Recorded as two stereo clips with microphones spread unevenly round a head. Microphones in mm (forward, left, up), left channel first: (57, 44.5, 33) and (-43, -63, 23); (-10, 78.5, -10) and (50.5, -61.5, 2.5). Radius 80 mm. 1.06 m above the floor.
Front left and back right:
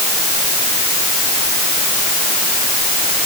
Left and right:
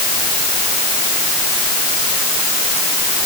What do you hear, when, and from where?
Only background noise.